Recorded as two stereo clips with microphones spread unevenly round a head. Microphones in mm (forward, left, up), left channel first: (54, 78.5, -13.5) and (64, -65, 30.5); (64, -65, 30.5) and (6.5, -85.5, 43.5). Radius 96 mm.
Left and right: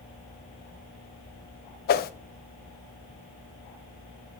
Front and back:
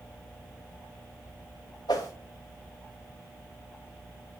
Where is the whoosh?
75° left, 0.5 m.